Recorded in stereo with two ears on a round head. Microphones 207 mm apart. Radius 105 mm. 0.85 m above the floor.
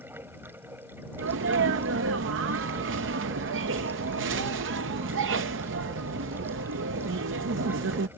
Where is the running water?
10° right (ahead or behind).